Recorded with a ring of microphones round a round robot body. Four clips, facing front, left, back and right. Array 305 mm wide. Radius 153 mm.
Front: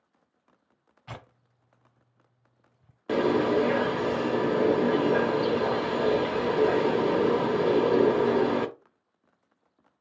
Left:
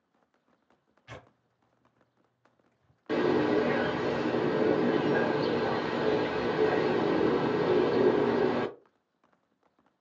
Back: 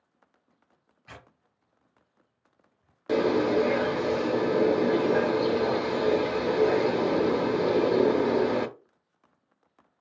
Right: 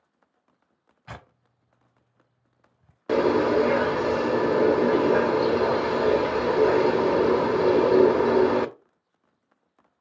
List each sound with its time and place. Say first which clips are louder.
1.1 s tearing paper: right 5 dB, front 5 dB; 50° right, 0.8 m
3.1 s a bird: right 5 dB, even; 80° right, 0.6 m